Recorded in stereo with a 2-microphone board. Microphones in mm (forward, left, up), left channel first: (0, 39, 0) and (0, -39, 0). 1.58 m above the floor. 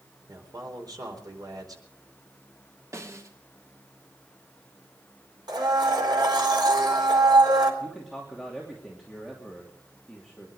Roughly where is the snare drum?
Right.